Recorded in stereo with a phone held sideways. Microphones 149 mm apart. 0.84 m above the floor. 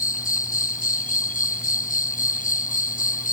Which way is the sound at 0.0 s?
75° left (ahead or behind).